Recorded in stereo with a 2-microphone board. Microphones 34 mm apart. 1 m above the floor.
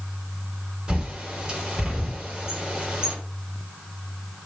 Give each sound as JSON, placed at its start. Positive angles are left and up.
{"t": 0.9, "sound": "a bird", "side_deg": -25, "distance_m": 3.5}